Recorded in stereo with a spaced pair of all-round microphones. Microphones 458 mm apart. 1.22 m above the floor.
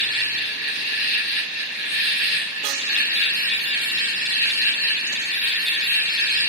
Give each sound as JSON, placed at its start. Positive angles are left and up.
{"t": 0.0, "sound": "an insect", "side_deg": 60, "distance_m": 1.4}